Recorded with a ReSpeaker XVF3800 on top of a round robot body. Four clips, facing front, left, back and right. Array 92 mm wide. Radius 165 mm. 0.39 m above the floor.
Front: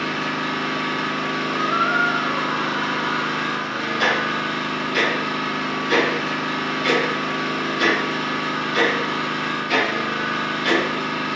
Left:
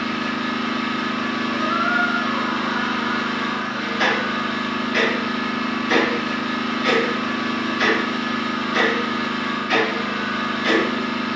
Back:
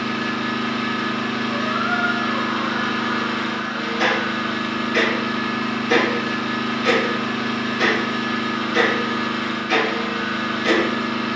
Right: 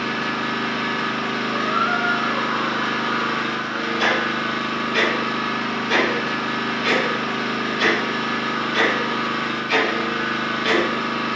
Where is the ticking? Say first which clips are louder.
Left 1 dB, even; 105° left, 1.6 m.